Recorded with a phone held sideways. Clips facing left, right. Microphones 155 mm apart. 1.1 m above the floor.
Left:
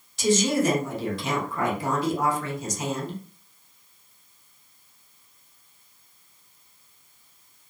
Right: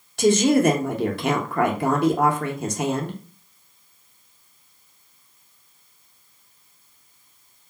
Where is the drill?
No drill in this recording.